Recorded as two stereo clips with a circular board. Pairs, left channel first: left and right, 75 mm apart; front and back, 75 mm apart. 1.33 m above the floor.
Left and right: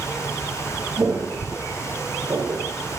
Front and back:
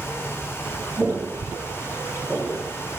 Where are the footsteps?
100° right, 1.8 m; by 2.6 s 75° right, 2.5 m.